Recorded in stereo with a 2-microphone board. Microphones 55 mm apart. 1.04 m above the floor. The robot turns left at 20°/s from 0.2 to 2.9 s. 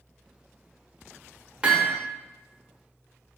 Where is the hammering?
20° right (ahead or behind), 0.8 m; by 2.0 s 15° right (ahead or behind), 0.8 m.